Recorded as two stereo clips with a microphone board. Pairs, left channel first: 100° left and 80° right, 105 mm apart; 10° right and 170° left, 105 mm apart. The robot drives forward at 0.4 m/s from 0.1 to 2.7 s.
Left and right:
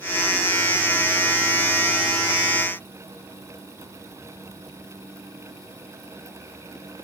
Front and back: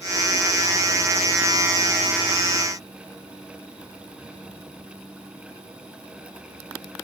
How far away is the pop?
No pop in this recording.